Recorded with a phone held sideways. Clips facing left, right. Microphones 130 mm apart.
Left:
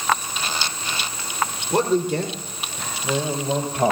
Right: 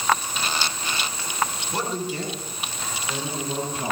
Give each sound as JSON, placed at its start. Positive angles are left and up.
{"t": 1.7, "sound": "a man speaking", "side_deg": 55, "distance_m": 2.5}